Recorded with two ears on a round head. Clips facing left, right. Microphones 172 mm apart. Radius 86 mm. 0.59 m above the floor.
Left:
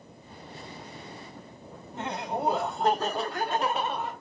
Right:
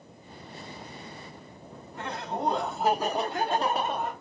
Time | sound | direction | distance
1.9 | laughter | 25° left (ahead or behind) | 1.2 m